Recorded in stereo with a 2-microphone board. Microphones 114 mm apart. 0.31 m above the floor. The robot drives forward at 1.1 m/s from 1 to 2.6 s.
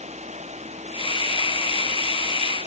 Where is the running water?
80° right; by 2.7 s 85° right.